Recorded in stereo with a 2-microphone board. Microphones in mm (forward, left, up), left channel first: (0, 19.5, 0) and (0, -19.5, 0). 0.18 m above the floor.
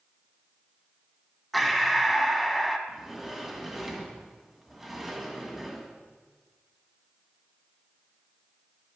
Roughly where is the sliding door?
Centre.